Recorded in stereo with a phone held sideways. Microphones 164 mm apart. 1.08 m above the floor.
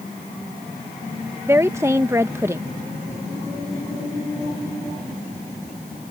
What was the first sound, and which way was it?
A woman speaking, 15° right (ahead or behind).